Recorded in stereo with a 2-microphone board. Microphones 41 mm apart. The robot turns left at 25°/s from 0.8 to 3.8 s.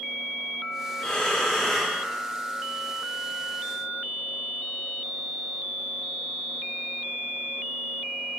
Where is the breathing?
20° left (ahead or behind), 0.6 m; by 2.0 s 5° left (ahead or behind), 0.6 m.